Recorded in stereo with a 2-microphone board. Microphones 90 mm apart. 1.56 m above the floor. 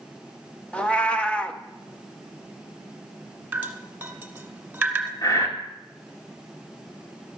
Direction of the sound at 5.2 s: 40° left (ahead or behind).